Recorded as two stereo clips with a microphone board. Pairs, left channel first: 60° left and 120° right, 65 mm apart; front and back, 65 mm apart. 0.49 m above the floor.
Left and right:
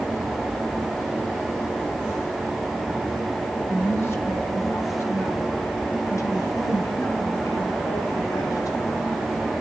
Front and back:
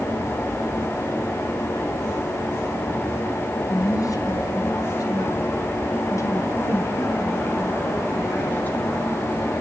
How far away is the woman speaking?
About 4.5 m.